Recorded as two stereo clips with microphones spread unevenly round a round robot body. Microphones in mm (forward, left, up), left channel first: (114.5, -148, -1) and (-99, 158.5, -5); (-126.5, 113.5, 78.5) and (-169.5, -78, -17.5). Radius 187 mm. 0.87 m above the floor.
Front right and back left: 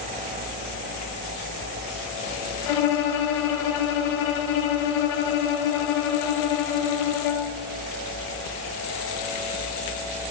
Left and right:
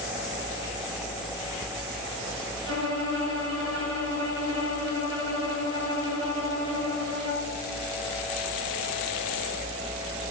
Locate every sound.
2.7 s a violin: 70° right, 1.0 m